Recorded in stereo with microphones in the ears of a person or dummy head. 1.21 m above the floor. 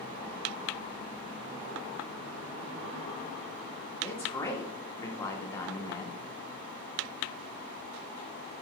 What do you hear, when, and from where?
4.0 s a man speaking: 15° left (ahead or behind), 1.7 m